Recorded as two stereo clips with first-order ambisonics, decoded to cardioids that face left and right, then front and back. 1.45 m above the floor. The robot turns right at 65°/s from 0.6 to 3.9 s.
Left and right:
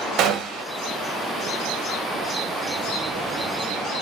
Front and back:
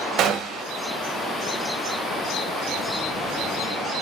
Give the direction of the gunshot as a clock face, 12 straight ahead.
4 o'clock.